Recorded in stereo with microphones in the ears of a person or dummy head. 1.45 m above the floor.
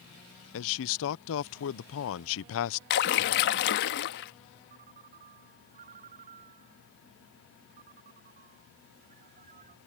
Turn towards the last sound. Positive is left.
turn(degrees=-45)  # may be behind; listen again after turning